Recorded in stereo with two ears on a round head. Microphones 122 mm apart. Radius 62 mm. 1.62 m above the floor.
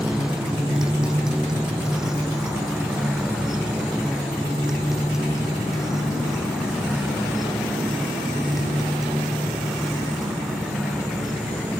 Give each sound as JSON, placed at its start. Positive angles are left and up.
{"t": 0.0, "sound": "a motorcycle", "side_deg": -5}